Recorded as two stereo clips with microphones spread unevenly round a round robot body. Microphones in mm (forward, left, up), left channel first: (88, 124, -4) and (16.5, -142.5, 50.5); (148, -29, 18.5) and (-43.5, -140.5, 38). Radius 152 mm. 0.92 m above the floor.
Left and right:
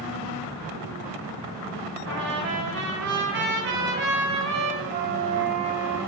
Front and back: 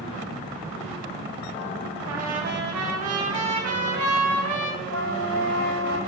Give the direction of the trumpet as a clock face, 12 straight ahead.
5 o'clock.